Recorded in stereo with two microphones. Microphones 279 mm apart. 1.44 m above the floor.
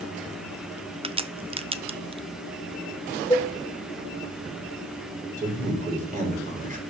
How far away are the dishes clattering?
About 0.8 m.